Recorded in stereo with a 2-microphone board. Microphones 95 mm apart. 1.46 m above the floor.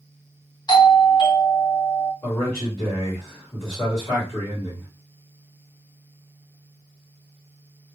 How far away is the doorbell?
About 1.0 m.